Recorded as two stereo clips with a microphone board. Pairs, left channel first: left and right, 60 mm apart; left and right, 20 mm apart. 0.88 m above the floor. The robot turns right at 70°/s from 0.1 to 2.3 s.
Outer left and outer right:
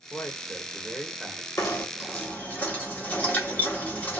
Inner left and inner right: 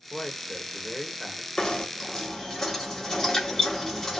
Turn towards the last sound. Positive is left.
turn(degrees=155)